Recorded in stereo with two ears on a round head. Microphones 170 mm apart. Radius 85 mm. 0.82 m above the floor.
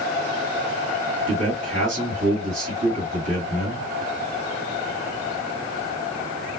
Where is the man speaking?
40° right (ahead or behind), 1.5 m.